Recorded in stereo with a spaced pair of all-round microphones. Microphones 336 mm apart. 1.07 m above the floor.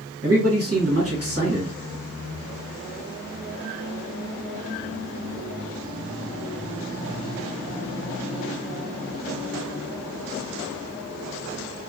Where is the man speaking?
45° right (ahead or behind), 1.3 m.